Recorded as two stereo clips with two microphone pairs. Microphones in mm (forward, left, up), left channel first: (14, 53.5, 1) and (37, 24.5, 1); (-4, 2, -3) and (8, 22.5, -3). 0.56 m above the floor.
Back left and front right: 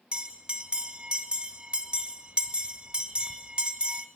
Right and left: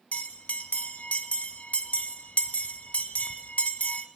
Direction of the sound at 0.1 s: 110° right.